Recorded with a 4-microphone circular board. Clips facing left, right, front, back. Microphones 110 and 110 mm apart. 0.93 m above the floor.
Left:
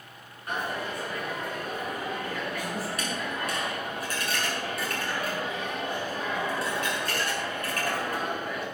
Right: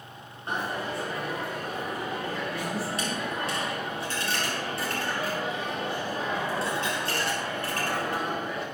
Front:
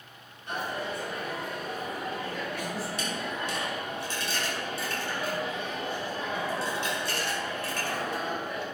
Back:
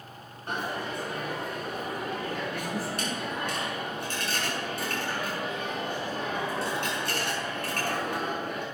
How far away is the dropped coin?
About 6 m.